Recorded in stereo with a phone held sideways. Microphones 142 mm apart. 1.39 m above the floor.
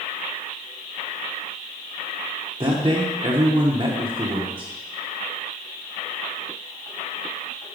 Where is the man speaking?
30° right (ahead or behind), 0.8 m.